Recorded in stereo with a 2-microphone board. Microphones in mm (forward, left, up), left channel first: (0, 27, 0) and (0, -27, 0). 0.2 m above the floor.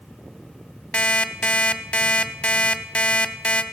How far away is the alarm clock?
About 0.7 m.